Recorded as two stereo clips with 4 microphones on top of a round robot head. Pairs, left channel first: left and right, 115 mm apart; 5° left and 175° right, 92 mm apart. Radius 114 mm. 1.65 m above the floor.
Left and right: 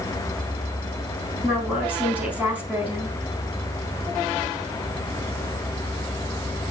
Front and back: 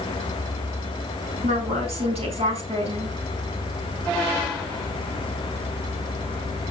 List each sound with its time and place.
1.4 s a woman speaking: 165° right, 9.5 m